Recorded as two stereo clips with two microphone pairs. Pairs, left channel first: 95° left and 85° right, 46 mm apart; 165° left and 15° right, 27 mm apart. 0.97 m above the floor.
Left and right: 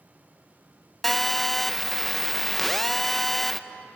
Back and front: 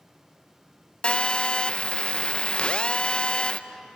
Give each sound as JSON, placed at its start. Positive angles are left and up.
{"t": 1.0, "sound": "a phone buzzing", "azimuth_deg": 180, "distance_m": 0.6}